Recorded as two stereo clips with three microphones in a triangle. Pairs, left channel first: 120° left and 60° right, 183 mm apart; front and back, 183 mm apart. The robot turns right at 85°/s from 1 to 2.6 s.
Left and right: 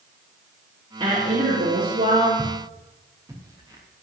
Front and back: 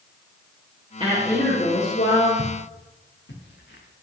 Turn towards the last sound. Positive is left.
turn(degrees=5)